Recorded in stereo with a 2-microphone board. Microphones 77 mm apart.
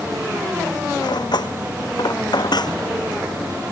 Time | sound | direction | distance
1.0 | cutlery clinking | 65° left (ahead or behind) | ?